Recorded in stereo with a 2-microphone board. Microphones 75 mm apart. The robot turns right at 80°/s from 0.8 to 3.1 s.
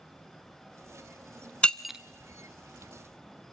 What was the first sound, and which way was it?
Breaking glass, 15° left (ahead or behind).